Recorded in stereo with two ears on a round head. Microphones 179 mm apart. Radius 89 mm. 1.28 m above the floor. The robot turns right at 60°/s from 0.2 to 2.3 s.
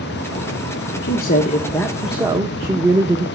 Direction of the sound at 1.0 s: 120° left.